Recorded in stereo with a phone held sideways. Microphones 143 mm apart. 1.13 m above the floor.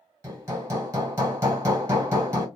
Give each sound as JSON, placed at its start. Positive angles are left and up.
{"t": 0.2, "sound": "hammering", "side_deg": -20, "distance_m": 1.9}